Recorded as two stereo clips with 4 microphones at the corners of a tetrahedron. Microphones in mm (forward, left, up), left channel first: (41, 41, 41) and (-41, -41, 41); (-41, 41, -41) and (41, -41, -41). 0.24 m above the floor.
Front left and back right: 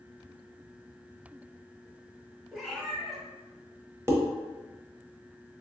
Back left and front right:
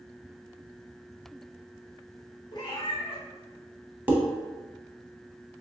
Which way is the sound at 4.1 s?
95° right.